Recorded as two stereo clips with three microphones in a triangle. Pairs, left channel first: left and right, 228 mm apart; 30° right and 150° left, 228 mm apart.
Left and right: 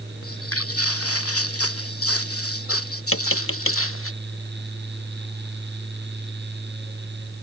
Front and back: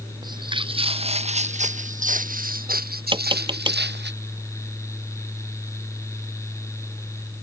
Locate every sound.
0.2 s footsteps: 80° left; by 4.1 s 110° left
3.1 s tapping: 85° left